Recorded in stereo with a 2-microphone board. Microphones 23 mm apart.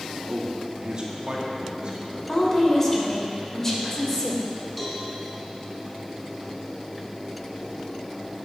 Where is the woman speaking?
20° left (ahead or behind), 2.5 m.